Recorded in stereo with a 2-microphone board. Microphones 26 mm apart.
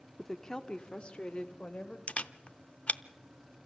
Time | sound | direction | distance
0.2 | a woman speaking | 10° left (ahead or behind) | 0.9 m
2.1 | a camera shutter | 60° left (ahead or behind) | 0.6 m